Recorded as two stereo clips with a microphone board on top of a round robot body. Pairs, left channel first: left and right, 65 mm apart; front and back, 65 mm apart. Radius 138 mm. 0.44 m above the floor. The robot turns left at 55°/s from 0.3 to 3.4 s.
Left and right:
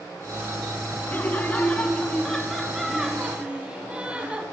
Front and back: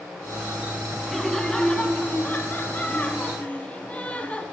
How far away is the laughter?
About 0.8 m.